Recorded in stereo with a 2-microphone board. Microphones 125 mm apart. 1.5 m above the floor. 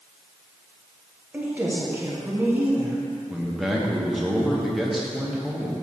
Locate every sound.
1.3 s a woman speaking: 15° right (ahead or behind), 1.3 m
3.3 s a man speaking: 5° right (ahead or behind), 1.2 m